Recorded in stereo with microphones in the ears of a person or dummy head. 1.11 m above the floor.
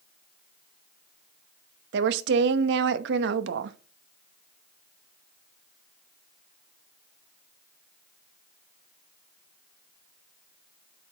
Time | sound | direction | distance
1.9 | a woman speaking | 75° right (ahead or behind) | 0.9 m